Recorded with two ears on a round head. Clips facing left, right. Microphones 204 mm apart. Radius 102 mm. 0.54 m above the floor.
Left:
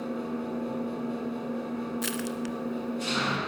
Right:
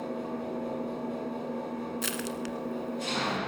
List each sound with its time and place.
0.0 s an engine running: 10° left (ahead or behind), 1.9 m
2.0 s crushing: centre (ahead or behind), 1.2 m